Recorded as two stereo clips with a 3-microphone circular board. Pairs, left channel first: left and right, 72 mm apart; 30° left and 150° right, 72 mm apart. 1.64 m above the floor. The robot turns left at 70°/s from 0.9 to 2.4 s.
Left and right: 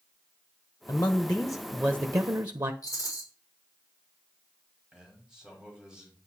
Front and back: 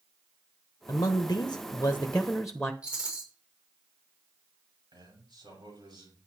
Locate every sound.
0.9 s a man speaking: 45° left, 1.1 m; by 2.7 s 60° right, 1.1 m
2.8 s a rattle: 130° left, 6 m
4.9 s a man speaking: 175° right, 8 m